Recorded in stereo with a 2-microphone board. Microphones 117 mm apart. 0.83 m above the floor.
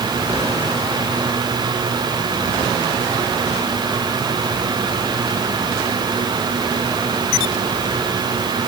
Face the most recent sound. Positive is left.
No sound to turn to.